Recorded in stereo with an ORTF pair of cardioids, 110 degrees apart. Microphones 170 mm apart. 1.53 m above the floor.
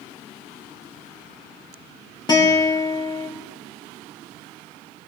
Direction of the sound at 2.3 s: 25° left.